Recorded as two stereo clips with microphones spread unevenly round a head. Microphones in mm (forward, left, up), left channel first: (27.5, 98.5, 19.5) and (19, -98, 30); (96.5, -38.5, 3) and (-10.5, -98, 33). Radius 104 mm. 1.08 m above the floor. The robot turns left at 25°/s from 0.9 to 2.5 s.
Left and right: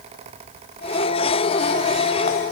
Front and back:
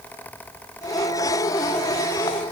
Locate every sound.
Only background noise.